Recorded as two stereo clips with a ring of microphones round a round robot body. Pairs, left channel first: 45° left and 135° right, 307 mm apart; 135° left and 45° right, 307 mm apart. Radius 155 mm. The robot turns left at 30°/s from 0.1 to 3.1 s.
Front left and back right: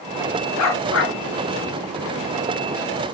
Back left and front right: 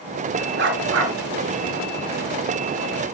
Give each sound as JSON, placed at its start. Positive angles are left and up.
{"t": 0.6, "sound": "a dog barking", "azimuth_deg": 10, "distance_m": 3.0}